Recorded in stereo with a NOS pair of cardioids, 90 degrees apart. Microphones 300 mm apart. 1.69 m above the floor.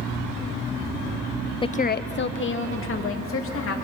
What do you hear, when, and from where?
1.6 s a woman speaking: 15° left, 0.6 m; by 3.8 s 45° left, 4 m